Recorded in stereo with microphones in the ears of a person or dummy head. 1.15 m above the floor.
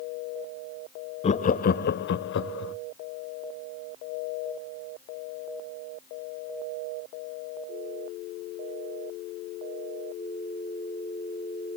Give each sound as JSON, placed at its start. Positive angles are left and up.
{"t": 1.2, "sound": "laughter", "side_deg": 35, "distance_m": 0.6}